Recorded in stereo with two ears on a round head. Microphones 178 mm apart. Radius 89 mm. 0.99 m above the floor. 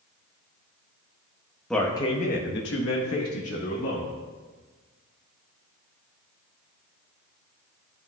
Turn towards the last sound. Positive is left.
turn(degrees=75)  # may be behind; listen again after turning